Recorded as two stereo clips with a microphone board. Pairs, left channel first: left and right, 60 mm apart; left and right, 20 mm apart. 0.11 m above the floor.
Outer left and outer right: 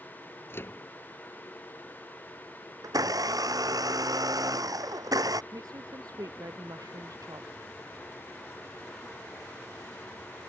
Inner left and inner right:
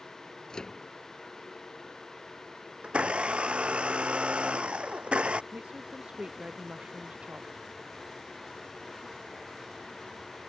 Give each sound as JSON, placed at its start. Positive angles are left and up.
{"t": 0.5, "sound": "a microwave", "side_deg": 40}
{"t": 2.8, "sound": "a blender", "side_deg": -80}
{"t": 5.5, "sound": "a woman speaking", "side_deg": -75}